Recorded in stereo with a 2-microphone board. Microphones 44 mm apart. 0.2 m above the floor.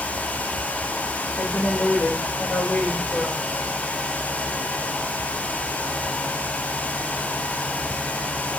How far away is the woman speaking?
About 4.5 m.